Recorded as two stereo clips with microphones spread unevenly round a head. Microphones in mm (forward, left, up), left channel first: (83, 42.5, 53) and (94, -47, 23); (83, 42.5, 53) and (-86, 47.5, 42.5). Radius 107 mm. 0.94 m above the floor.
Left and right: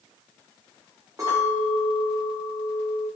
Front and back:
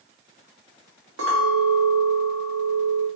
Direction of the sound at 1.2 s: 160° right.